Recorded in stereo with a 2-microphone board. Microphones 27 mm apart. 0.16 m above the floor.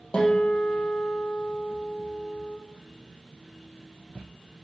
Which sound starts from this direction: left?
A guitar, at 0.1 s.